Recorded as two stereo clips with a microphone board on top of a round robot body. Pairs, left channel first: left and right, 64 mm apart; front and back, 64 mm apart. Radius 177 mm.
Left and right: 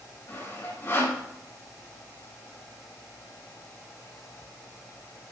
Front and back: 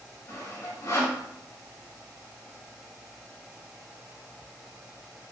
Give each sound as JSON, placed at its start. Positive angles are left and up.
{"t": 0.3, "sound": "sawing", "azimuth_deg": 40, "distance_m": 5.0}